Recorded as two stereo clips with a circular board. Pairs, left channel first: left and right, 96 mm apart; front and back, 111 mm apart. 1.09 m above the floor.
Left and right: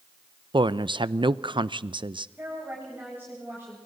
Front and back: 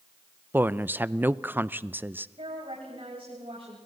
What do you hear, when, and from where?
0.5 s a woman speaking: 110° right, 0.5 m
2.4 s a woman speaking: 160° right, 7.5 m